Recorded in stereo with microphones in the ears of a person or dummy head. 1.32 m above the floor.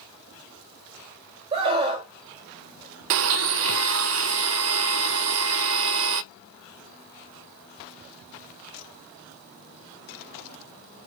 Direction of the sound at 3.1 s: 70° right (ahead or behind).